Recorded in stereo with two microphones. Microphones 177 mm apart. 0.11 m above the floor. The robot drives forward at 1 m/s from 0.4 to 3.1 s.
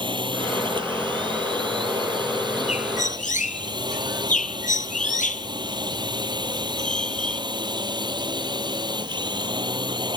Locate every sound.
0.0 s a drone: 25° right (ahead or behind)
2.7 s a bird: 40° left (ahead or behind); by 7.4 s 45° left (ahead or behind)